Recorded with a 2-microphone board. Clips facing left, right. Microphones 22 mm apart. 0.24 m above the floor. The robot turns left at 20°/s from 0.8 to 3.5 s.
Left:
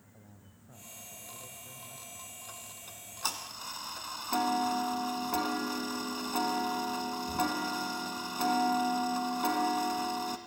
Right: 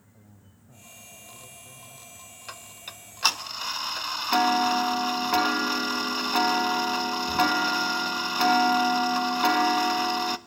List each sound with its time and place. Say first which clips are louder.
0.1 s a man speaking: right 1 dB; 15° left (ahead or behind), 1.5 m; by 2.4 s 5° left (ahead or behind), 1.5 m
2.5 s ticking: right 6 dB; 70° right (ahead or behind), 0.9 m; by 10.4 s 60° right (ahead or behind), 0.9 m